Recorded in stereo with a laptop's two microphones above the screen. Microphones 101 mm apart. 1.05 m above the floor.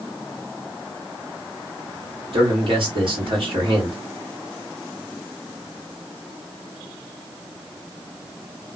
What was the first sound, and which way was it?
A man speaking, 55° right (ahead or behind).